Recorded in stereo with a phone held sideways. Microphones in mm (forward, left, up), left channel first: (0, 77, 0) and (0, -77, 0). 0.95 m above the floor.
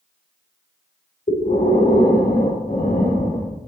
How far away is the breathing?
About 1.9 m.